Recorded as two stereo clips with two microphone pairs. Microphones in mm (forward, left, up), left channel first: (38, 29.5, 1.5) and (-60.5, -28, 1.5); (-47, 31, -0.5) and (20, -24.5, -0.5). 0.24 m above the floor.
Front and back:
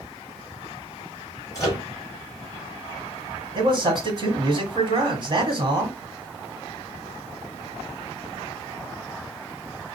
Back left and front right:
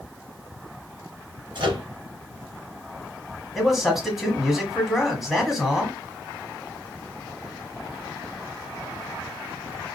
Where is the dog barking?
No dog barking in this recording.